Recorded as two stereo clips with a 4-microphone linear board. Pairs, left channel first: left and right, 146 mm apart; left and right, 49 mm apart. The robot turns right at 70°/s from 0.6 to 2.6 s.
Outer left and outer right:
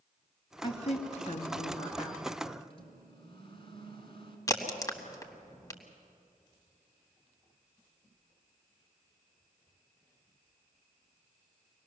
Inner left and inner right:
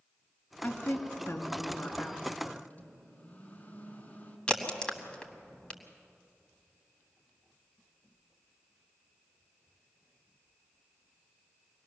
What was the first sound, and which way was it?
A woman speaking, 35° left.